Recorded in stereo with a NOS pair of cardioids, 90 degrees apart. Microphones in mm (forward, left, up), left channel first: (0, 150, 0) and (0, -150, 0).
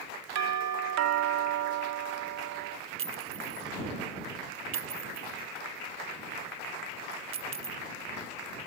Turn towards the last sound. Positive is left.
turn(degrees=-45)